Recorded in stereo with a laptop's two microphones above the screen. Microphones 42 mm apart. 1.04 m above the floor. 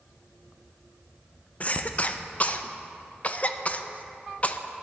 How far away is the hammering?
No hammering in this recording.